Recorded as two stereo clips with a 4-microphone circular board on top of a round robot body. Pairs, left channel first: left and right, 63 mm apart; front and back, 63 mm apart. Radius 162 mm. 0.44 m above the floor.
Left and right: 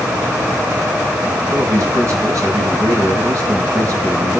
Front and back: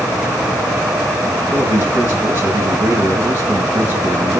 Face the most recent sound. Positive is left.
turn(degrees=-125)